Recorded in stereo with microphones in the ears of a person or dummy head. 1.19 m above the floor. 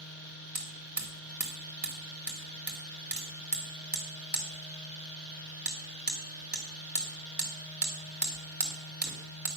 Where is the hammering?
10° right (ahead or behind), 1.8 m.